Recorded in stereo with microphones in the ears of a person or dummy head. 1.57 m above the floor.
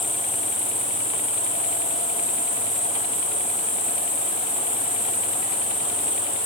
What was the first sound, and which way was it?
An insect, 25° left (ahead or behind).